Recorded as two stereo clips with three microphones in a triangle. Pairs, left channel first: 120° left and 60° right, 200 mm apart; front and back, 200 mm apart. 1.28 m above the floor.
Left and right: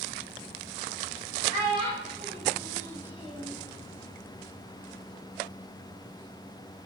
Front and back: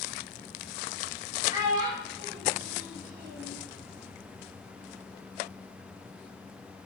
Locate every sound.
1.5 s a child speaking: 110° right, 4 m; by 3.6 s 150° right, 2.5 m